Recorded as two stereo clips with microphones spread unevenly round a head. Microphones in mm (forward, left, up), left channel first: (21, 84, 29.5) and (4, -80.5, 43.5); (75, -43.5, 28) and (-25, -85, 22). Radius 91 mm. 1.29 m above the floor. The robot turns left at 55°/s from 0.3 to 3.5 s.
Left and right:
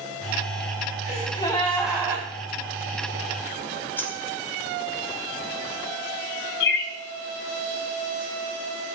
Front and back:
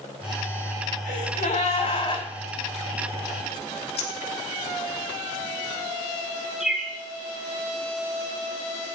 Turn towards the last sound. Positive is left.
turn(degrees=115)